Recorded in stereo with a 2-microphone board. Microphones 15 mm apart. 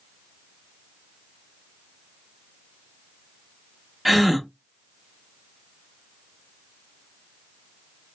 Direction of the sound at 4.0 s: 10° right (ahead or behind).